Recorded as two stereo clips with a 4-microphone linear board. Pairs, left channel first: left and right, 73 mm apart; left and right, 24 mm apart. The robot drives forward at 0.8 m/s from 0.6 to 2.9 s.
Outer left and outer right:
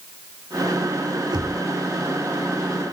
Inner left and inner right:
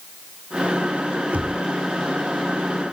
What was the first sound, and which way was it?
Knocking, 80° right.